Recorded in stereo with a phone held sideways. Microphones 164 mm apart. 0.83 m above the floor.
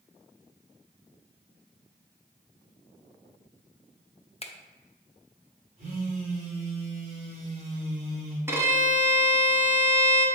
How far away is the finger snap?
About 0.6 m.